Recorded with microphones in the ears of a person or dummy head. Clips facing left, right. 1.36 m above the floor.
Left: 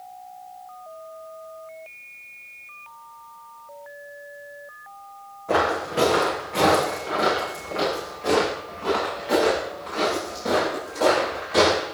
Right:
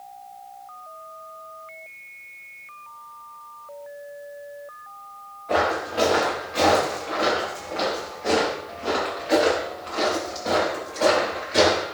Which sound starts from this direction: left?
Footsteps, at 5.5 s.